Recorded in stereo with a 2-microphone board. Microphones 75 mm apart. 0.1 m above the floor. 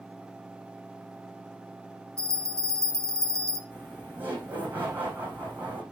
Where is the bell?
40° right (ahead or behind), 1.1 m.